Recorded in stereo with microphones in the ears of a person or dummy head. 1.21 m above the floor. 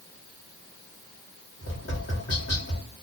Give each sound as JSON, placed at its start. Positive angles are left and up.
{"t": 1.6, "sound": "tapping", "side_deg": 60, "distance_m": 1.2}